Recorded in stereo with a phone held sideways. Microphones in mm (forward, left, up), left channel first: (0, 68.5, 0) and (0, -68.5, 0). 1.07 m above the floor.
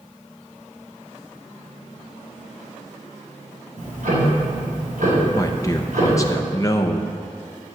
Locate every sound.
3.8 s ticking: 85° right, 4.5 m
5.3 s a man speaking: 25° left (ahead or behind), 0.7 m